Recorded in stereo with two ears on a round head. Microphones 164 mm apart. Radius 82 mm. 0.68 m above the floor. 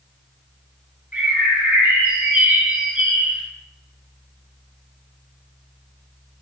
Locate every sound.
1.1 s a bird: 5° right (ahead or behind), 0.9 m